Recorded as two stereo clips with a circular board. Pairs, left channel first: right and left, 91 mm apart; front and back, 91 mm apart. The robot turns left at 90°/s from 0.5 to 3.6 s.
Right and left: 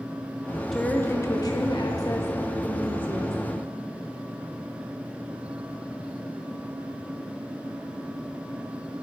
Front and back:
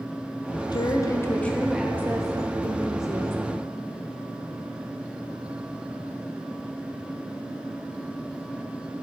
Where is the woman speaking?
5° right, 0.7 m; by 3.6 s 100° left, 0.7 m.